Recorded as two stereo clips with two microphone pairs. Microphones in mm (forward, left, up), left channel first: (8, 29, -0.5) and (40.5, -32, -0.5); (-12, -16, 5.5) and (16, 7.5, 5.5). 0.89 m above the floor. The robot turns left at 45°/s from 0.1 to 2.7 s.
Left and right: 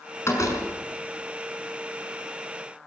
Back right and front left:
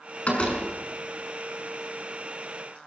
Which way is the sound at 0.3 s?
170° left.